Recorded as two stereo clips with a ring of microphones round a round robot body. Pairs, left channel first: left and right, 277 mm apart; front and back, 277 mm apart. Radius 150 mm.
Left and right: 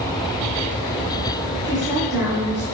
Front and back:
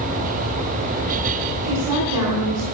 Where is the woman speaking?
170° right, 3 m.